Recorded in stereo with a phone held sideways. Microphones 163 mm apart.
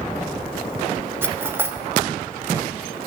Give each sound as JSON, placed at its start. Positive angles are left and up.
{"t": 1.2, "sound": "cutlery clinking", "side_deg": -15, "distance_m": 1.2}